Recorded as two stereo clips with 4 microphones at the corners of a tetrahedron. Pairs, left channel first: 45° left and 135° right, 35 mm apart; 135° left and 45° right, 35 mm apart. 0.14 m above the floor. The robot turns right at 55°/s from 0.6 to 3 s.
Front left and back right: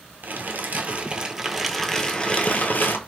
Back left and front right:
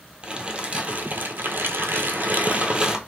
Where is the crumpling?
110° right, 0.6 m; by 3.0 s 25° left, 0.6 m.